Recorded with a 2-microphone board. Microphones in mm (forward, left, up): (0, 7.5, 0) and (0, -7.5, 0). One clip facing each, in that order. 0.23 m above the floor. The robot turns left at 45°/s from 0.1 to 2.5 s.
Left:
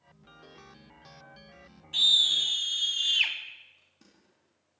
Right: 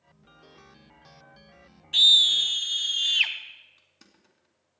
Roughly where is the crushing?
Right.